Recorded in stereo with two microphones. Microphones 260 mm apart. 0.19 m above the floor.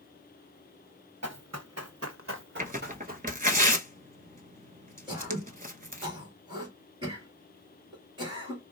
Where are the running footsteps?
80° right, 1.1 m; by 3.3 s 30° right (ahead or behind), 1.2 m.